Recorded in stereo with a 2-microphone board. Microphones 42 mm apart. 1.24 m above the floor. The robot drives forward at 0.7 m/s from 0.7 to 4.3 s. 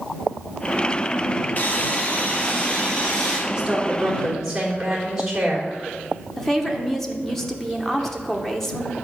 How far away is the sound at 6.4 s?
About 0.9 m.